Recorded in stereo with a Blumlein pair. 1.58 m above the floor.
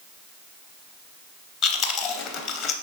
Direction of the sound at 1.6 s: 30° left.